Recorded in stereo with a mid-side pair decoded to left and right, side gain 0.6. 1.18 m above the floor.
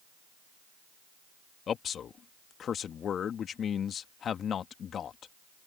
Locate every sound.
1.7 s a man speaking: 45° left